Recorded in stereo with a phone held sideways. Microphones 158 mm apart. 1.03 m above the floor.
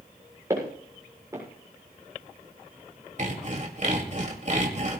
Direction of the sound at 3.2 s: 50° right (ahead or behind).